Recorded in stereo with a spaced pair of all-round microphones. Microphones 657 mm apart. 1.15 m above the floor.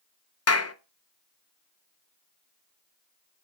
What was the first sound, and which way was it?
A clap, 25° left (ahead or behind).